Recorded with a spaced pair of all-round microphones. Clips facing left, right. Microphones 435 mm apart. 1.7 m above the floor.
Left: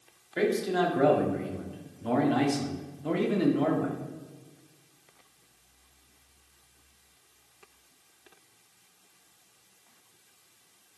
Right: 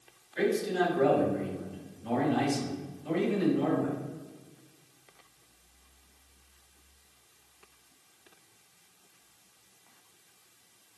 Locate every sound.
0.4 s a man speaking: 85° left, 1.7 m